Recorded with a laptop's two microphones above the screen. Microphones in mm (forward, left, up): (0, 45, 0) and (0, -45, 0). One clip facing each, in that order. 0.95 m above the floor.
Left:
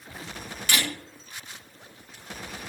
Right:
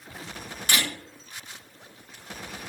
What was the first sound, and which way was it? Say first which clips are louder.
A camera shutter: even; 35° right (ahead or behind).